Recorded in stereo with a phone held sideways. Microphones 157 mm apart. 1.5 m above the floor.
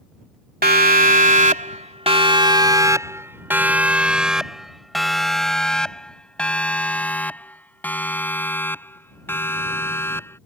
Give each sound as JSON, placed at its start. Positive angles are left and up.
{"t": 0.6, "sound": "a siren", "side_deg": -80}